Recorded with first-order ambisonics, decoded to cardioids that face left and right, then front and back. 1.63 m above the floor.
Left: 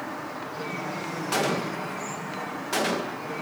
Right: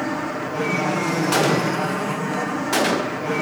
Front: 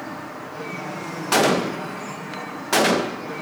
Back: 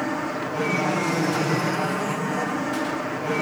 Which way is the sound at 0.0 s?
130° right.